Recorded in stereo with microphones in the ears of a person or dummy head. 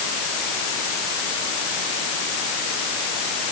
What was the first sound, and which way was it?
Only background noise.